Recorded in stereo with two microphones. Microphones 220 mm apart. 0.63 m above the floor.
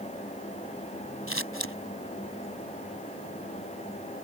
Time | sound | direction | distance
1.3 | scissors | 70° left (ahead or behind) | ?